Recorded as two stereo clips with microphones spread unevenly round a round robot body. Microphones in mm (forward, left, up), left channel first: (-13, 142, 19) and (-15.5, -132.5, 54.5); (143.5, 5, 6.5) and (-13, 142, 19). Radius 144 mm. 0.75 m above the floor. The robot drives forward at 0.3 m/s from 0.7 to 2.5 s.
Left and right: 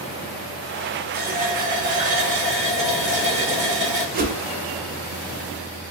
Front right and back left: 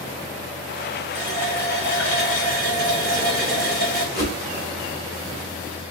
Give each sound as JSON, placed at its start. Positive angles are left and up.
{"t": 1.1, "sound": "a running tap", "azimuth_deg": -150, "distance_m": 1.1}
{"t": 4.1, "sound": "a whoosh", "azimuth_deg": -145, "distance_m": 0.7}